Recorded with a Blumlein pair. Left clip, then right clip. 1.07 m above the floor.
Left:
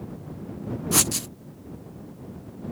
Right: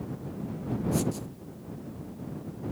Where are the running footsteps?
I don't hear running footsteps.